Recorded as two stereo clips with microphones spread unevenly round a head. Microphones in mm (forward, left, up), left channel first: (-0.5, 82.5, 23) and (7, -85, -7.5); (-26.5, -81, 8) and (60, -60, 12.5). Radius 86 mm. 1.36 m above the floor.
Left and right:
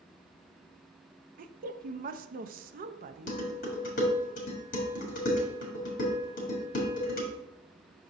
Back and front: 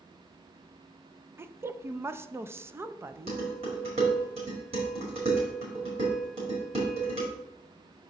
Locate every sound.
1.4 s a woman speaking: 50° right, 0.5 m
3.3 s dishes clattering: 55° left, 1.7 m